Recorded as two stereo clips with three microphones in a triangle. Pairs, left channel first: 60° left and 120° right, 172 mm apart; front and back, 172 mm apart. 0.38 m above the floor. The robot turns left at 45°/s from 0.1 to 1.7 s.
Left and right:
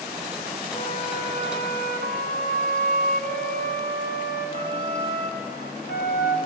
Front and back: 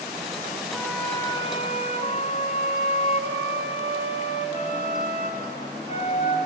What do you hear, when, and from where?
0.7 s a flute: 95° left, 1.8 m; by 6.4 s 50° left, 1.8 m